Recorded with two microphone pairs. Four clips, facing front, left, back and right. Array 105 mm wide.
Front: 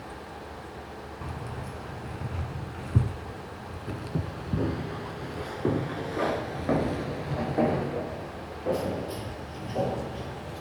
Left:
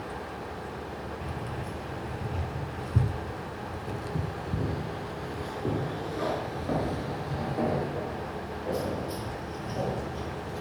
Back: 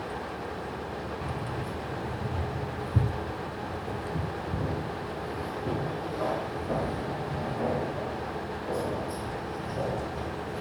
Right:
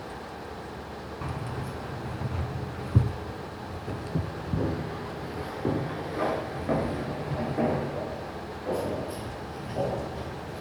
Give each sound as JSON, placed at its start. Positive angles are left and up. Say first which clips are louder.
{"t": 1.2, "sound": "keys jangling", "louder": "right 1 dB, back 4 dB", "azimuth_deg": -85, "distance_m": 2.5}